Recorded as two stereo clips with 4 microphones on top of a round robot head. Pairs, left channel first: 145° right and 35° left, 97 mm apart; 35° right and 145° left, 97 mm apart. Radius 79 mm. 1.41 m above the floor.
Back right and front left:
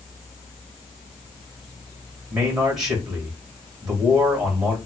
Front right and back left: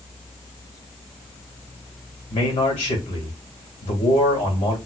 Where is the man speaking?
45° right, 1.9 m.